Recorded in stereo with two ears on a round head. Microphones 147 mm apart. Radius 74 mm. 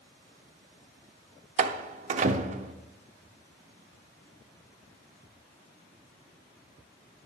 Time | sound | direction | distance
1.6 | a door slam | 45° right (ahead or behind) | 0.7 m